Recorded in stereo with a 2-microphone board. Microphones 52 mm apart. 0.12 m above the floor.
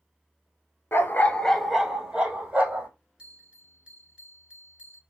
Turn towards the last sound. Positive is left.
turn(degrees=-20)  # may be behind; listen again after turning